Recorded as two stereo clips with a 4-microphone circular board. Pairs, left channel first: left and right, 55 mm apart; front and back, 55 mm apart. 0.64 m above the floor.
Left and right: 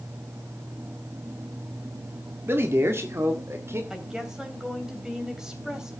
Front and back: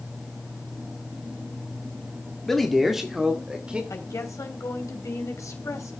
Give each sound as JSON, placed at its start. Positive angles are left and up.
{"t": 2.5, "sound": "a man speaking", "azimuth_deg": -80, "distance_m": 1.3}
{"t": 3.9, "sound": "a woman speaking", "azimuth_deg": -10, "distance_m": 3.0}